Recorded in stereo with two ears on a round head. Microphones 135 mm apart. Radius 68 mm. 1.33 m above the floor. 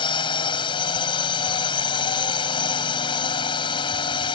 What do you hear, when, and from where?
0.0 s a drone: 35° left (ahead or behind)